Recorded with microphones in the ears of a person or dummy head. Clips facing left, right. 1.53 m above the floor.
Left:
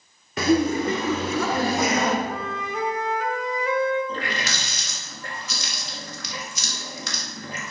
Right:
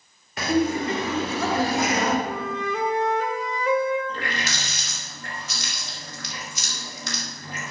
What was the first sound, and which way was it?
Laughter, 75° left (ahead or behind).